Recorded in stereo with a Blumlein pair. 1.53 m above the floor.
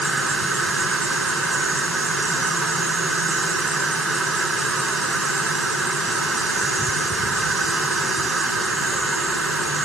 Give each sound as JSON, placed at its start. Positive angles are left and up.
{"t": 0.0, "sound": "an insect", "azimuth_deg": -10}